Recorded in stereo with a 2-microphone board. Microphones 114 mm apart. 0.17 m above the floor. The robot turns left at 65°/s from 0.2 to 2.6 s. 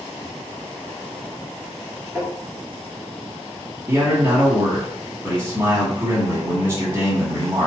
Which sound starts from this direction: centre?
Tapping, at 2.1 s.